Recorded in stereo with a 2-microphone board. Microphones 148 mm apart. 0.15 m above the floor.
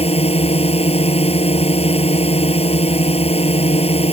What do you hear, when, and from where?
0.0 s a drone: 45° left (ahead or behind)